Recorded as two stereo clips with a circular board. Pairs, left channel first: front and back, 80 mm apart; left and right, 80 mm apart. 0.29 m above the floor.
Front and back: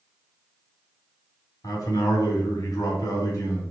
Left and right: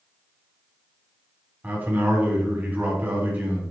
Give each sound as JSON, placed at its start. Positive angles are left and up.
{"t": 1.6, "sound": "a man speaking", "azimuth_deg": -25, "distance_m": 2.0}